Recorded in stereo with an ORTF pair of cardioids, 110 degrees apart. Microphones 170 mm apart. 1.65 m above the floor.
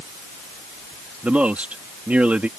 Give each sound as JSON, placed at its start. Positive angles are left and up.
{"t": 1.2, "sound": "a man speaking", "azimuth_deg": -10}